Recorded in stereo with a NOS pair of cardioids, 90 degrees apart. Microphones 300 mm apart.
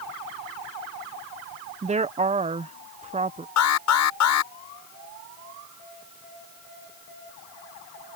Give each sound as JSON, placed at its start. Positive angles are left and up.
{"t": 1.8, "sound": "a woman speaking", "azimuth_deg": -20}
{"t": 3.6, "sound": "an alarm", "azimuth_deg": 65}